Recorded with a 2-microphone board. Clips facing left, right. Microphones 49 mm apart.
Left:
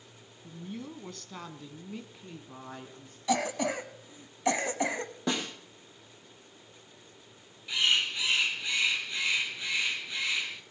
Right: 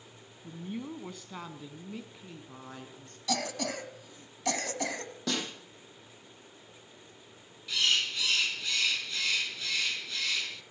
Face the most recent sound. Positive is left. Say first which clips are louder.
# left 2 dB
turn(degrees=20)  # may be behind; listen again after turning